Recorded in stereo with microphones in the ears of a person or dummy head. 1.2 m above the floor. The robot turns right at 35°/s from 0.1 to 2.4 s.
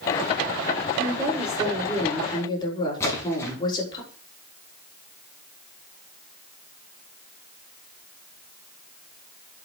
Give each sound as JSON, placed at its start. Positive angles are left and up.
{"t": 1.0, "sound": "a woman speaking", "azimuth_deg": -25, "distance_m": 5.5}
{"t": 3.0, "sound": "a splash", "side_deg": 15, "distance_m": 5.0}